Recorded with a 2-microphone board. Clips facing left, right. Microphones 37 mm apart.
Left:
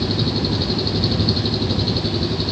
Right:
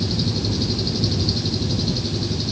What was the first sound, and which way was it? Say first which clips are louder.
An engine running: left 3 dB; 35° left (ahead or behind).